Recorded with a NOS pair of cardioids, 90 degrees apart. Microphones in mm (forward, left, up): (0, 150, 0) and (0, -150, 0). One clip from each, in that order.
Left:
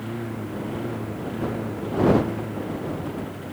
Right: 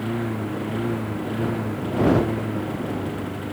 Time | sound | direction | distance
0.0 | a lawn mower | 35° right | ?